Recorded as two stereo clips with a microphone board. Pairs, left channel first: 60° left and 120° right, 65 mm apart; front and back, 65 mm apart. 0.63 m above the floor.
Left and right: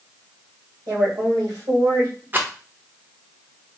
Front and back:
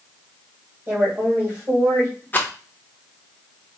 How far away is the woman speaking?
About 2.5 m.